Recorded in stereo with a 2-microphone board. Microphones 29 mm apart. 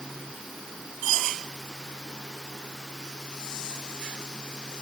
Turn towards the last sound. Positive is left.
No sound to turn to.